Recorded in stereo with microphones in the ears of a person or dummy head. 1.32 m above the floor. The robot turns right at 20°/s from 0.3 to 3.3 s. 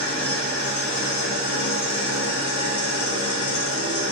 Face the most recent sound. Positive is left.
turn(degrees=95)